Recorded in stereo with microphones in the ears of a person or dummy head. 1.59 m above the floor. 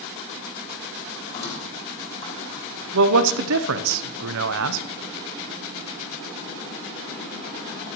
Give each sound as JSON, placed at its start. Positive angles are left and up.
{"t": 1.3, "sound": "a squeak", "side_deg": 35, "distance_m": 3.0}
{"t": 2.9, "sound": "a man speaking", "side_deg": -70, "distance_m": 0.8}